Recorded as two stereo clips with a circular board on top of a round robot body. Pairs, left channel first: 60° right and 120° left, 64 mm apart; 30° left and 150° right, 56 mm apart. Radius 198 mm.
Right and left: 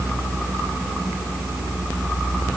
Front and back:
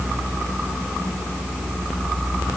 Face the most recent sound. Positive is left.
No sound to turn to.